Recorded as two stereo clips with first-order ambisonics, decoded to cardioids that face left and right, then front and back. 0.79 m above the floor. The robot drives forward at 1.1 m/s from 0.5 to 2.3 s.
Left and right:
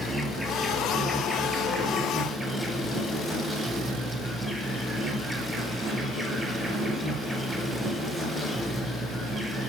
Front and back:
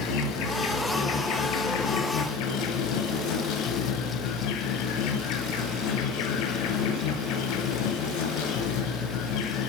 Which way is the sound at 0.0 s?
Straight ahead.